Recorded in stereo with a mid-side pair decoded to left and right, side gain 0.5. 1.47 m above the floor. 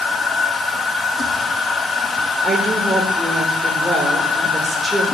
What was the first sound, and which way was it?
A machine running, 25° left.